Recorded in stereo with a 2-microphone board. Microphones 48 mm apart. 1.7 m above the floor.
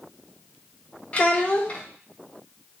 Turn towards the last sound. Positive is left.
turn(degrees=25)  # may be behind; listen again after turning